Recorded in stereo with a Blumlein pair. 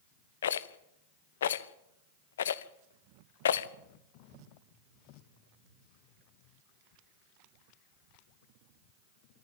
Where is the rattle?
65° left, 0.8 m.